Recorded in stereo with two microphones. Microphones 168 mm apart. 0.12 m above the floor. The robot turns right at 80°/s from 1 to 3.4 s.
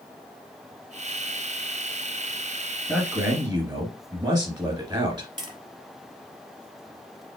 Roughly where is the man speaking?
Behind.